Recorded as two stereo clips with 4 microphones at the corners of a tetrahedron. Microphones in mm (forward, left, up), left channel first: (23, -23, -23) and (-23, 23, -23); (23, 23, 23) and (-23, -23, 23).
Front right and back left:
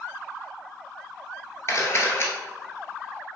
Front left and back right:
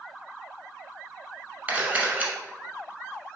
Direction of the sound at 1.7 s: 75° right.